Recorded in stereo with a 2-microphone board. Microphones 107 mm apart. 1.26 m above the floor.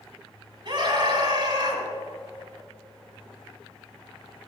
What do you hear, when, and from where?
0.7 s a scream: 50° right (ahead or behind), 5.5 m; by 1.8 s 45° right (ahead or behind), 6 m